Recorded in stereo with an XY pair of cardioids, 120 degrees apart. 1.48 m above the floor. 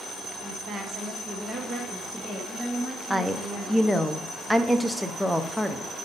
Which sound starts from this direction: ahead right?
A woman speaking, at 0.4 s.